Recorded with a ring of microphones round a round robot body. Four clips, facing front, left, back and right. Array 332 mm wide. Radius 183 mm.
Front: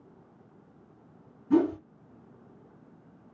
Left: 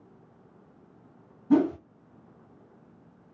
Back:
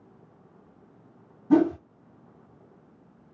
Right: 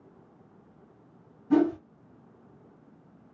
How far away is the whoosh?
About 1.2 m.